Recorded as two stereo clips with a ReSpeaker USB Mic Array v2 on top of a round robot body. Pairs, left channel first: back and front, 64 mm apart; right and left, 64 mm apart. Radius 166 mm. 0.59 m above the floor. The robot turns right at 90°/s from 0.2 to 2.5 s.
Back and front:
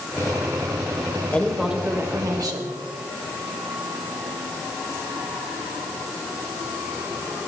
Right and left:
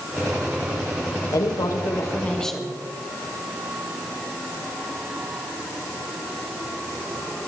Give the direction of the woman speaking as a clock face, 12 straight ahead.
4 o'clock.